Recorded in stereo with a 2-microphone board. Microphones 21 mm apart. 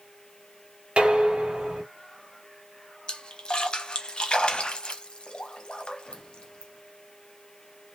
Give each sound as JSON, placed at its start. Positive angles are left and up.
{"t": 1.0, "sound": "dishes clattering", "side_deg": -65, "distance_m": 1.7}
{"t": 3.1, "sound": "a splash", "side_deg": 50, "distance_m": 0.9}